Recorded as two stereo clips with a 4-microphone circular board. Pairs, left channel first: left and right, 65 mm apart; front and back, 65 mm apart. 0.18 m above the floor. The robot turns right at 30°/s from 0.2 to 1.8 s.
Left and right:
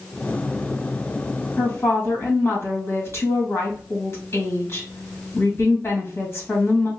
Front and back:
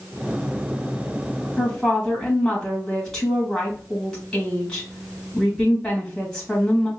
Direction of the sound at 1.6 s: 75° left.